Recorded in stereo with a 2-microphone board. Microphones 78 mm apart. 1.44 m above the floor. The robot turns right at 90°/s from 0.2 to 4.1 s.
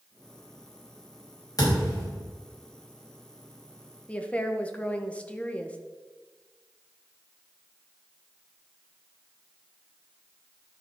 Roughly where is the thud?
Behind left.